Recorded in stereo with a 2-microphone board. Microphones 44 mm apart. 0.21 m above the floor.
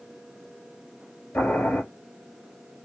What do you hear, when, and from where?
1.3 s boiling: 50° left (ahead or behind), 1.9 m